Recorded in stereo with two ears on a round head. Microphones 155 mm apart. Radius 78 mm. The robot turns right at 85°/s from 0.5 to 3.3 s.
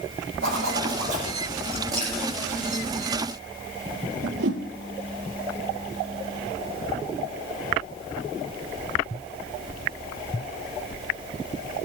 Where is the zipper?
95° right, 8.5 m; by 1.3 s 25° right, 8.5 m.